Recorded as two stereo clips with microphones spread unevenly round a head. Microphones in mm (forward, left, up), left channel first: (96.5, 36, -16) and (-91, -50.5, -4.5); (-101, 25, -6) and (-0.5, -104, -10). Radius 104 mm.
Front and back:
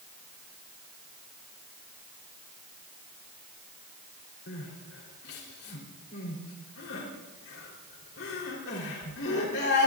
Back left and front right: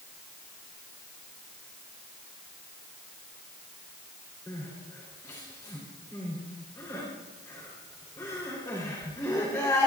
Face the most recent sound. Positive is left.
turn(degrees=55)